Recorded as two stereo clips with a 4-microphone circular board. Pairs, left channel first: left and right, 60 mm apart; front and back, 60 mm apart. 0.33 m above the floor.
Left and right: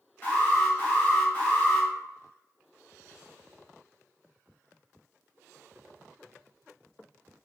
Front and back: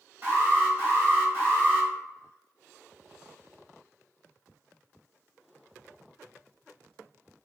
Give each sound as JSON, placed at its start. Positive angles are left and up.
{"t": 0.2, "sound": "an alarm", "azimuth_deg": 140, "distance_m": 1.1}